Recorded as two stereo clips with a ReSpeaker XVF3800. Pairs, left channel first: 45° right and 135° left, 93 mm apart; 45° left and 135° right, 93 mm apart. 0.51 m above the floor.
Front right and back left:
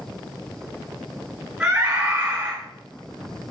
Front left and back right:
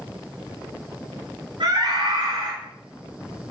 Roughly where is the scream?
Behind right.